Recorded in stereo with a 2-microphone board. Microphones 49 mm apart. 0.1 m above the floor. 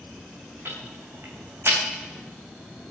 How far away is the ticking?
About 4.5 m.